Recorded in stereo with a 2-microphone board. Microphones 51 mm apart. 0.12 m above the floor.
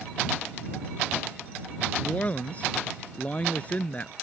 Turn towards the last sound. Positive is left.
turn(degrees=30)  # may be behind; listen again after turning